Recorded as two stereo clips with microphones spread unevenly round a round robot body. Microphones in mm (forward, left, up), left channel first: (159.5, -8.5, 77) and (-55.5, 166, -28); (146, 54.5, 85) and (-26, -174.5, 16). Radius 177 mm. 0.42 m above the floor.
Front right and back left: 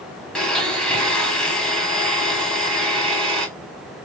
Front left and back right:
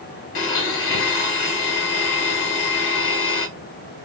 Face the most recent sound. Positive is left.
turn(degrees=50)